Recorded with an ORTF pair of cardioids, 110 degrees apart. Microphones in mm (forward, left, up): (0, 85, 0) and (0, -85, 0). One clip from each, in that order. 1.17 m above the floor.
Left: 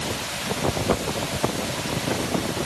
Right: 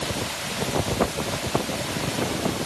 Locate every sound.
Only background noise.